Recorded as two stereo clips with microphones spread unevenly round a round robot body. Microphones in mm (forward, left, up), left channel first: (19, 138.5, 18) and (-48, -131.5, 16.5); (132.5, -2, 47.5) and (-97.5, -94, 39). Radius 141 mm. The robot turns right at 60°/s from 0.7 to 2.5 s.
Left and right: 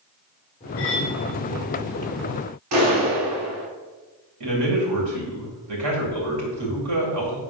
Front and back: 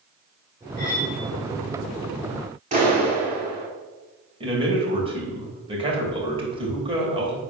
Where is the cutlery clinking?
110° left, 3 m; by 1.2 s 135° left, 3 m.